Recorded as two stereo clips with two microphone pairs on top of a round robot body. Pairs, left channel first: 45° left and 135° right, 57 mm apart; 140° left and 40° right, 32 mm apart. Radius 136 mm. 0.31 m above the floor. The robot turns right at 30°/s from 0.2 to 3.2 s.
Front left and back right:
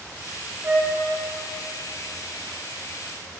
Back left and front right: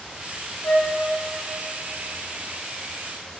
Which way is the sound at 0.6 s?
170° left.